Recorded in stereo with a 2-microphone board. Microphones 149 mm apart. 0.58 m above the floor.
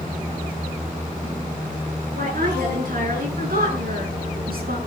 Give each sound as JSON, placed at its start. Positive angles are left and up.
{"t": 2.1, "sound": "a woman speaking", "side_deg": -70, "distance_m": 9.5}